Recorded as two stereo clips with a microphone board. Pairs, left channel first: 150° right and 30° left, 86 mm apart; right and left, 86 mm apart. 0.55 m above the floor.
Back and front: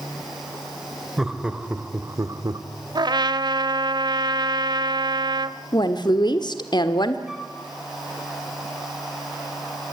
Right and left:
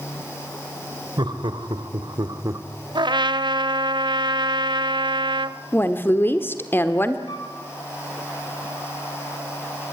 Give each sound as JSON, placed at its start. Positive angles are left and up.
{"t": 1.2, "sound": "laughter", "azimuth_deg": 115, "distance_m": 2.5}
{"t": 3.0, "sound": "a trumpet", "azimuth_deg": 65, "distance_m": 0.8}
{"t": 5.7, "sound": "a woman speaking", "azimuth_deg": -150, "distance_m": 1.2}
{"t": 7.3, "sound": "a flute", "azimuth_deg": -55, "distance_m": 2.5}